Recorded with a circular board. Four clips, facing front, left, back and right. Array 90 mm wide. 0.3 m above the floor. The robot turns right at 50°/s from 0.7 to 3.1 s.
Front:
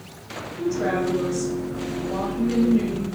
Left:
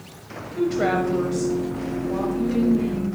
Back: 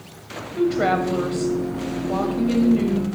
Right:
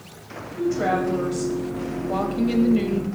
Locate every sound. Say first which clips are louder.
0.6 s a woman speaking: left 1 dB, back 4 dB; 155° left, 1.4 m; by 3.0 s 85° right, 1.4 m